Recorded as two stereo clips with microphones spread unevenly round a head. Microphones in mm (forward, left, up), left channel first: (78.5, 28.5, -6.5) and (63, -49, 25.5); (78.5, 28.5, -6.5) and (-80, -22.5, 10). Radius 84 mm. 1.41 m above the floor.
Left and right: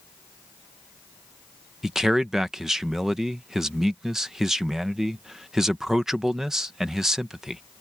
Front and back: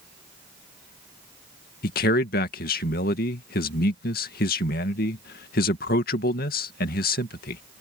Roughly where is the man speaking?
Ahead.